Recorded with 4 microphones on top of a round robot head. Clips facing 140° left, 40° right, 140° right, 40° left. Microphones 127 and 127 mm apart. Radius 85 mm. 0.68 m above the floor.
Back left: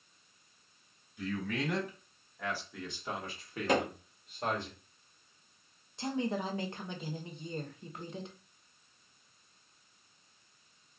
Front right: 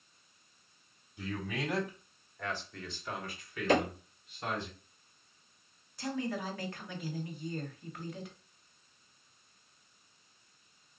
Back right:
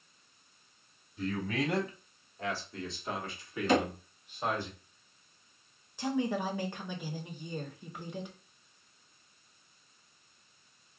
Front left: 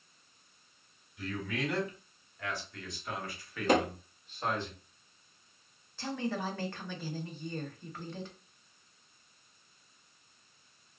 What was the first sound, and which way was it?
A man speaking, 100° right.